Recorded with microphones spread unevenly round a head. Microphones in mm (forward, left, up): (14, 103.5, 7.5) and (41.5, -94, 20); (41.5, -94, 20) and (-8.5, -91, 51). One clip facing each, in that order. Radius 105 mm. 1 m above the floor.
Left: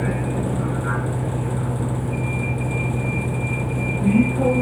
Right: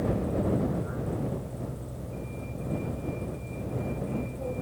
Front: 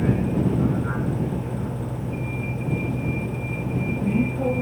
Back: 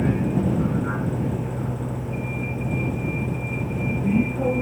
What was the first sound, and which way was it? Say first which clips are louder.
A vehicle: left 4 dB, even; 95° left.